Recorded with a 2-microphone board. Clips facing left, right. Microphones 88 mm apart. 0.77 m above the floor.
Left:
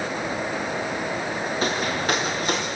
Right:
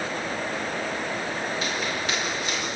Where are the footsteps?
40° left (ahead or behind), 5.5 m; by 2.7 s 45° left (ahead or behind), 6 m.